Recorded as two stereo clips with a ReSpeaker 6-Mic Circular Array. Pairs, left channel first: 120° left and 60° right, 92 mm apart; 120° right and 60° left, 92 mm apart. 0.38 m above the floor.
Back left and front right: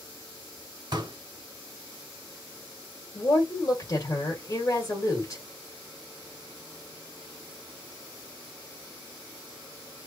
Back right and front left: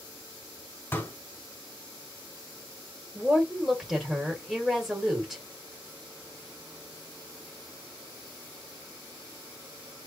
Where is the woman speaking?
145° left, 1.7 m.